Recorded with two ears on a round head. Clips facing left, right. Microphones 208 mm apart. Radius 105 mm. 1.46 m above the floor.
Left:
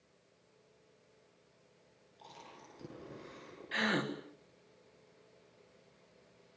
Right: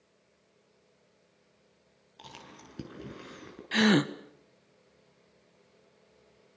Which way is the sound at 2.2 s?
85° right.